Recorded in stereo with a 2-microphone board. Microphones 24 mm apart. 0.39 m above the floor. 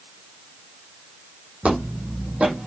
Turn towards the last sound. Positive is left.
turn(degrees=-55)  # may be behind; listen again after turning